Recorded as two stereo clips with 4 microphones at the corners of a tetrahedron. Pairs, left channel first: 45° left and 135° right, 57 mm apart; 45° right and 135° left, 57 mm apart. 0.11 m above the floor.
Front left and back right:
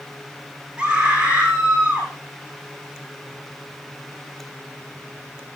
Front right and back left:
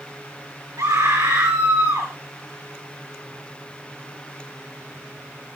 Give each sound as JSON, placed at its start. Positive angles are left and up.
{"t": 0.8, "sound": "a scream", "azimuth_deg": 155, "distance_m": 8.5}